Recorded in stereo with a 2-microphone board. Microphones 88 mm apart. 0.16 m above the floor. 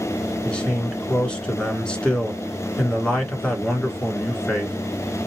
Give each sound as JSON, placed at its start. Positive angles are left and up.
{"t": 0.5, "sound": "a man speaking", "side_deg": 10, "distance_m": 1.8}